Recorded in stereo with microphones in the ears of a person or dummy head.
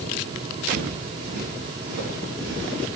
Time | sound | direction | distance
0.7 | footsteps | 65° right (ahead or behind) | 4.5 m